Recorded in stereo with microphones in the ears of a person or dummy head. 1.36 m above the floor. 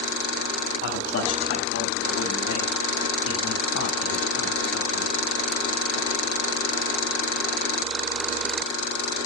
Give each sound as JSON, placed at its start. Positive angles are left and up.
{"t": 0.8, "sound": "a man speaking", "side_deg": 75, "distance_m": 9.5}